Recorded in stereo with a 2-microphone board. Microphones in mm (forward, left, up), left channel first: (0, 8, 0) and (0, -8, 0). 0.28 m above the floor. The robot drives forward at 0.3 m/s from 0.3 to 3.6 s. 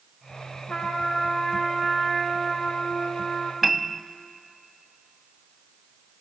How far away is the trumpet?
About 4 m.